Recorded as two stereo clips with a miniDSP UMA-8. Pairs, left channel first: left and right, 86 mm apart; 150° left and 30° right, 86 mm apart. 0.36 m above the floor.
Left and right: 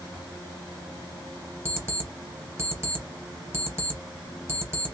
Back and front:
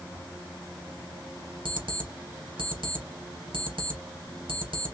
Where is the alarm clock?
30° right, 3 m.